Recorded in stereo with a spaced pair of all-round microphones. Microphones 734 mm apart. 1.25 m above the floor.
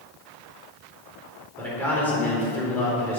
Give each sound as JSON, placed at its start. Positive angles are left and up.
{"t": 1.6, "sound": "a man speaking", "side_deg": 0, "distance_m": 4.0}